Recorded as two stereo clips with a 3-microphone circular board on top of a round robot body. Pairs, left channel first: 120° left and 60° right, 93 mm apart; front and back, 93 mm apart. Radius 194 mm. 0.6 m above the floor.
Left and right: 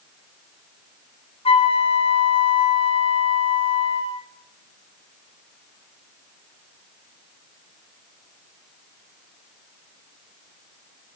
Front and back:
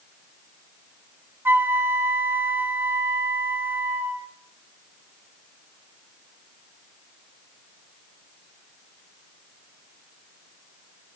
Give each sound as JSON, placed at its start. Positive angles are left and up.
{"t": 1.4, "sound": "a flute", "azimuth_deg": 110, "distance_m": 1.1}